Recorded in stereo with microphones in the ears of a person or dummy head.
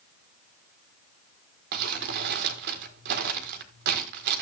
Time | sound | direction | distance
1.7 | crumpling | 50° right (ahead or behind) | 1.6 m